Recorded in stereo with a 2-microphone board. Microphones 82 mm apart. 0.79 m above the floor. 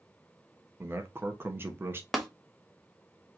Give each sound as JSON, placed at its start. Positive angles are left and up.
{"t": 0.8, "sound": "a man speaking", "side_deg": -30, "distance_m": 0.9}
{"t": 2.1, "sound": "tapping", "side_deg": 0, "distance_m": 0.9}